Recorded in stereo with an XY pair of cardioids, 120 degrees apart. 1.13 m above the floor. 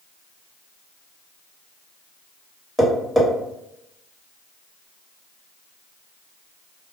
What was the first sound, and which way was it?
Tapping, straight ahead.